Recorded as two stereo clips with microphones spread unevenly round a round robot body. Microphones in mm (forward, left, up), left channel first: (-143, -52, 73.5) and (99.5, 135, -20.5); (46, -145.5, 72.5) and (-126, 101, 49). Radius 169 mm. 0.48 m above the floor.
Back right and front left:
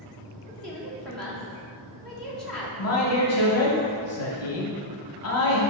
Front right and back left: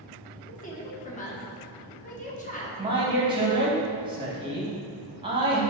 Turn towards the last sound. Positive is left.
turn(degrees=180)